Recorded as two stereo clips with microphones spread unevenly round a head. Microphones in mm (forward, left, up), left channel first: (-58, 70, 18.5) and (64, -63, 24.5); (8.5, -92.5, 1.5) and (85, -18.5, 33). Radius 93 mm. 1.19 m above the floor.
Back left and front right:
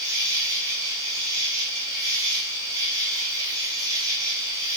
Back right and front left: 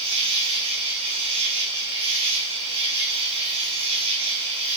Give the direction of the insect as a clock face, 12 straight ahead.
11 o'clock.